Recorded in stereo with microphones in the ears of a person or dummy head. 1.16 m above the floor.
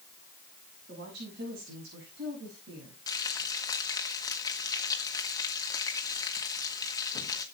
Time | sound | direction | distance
0.9 | a woman speaking | 60° right (ahead or behind) | 6.5 m
3.1 | frying | 15° left (ahead or behind) | 1.4 m